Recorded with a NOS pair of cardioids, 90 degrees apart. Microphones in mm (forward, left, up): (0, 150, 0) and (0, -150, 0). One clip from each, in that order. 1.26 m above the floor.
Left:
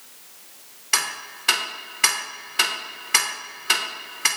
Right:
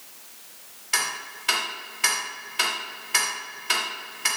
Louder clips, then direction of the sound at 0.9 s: Left 2 dB; 35° left.